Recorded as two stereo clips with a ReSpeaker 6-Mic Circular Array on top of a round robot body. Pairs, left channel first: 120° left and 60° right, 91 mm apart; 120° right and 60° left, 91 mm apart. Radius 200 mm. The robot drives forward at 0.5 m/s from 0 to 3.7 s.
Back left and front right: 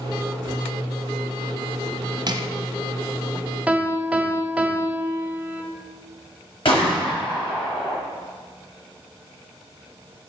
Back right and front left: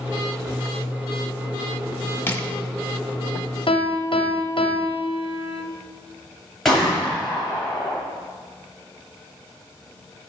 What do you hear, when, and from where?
2.3 s crushing: 60° right, 1.5 m; by 2.5 s 65° right, 1.5 m
3.7 s a piano: 135° right, 1.5 m
6.7 s a gunshot: 155° left, 4.5 m